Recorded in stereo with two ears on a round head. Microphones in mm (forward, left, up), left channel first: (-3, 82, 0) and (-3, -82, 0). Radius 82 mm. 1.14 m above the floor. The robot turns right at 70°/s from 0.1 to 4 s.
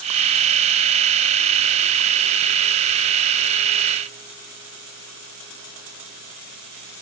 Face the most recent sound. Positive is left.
No sound to turn to.